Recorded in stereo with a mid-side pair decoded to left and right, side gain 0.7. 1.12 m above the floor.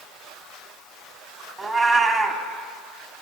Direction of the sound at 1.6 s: 25° right.